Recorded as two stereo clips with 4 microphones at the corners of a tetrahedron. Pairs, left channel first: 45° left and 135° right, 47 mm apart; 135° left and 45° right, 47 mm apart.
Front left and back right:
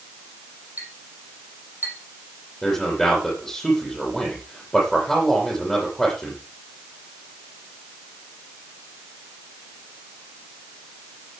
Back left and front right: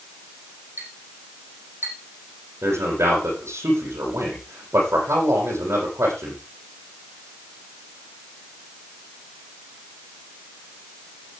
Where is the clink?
90° right, 6.5 m.